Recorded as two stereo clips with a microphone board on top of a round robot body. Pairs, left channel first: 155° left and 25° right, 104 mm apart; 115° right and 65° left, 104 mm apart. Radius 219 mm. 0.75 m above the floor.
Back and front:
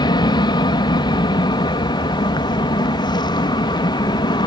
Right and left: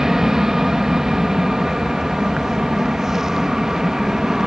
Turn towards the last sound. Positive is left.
turn(degrees=150)